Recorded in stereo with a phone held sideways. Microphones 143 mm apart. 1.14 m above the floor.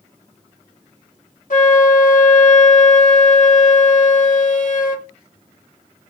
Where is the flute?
70° left (ahead or behind), 1.3 m.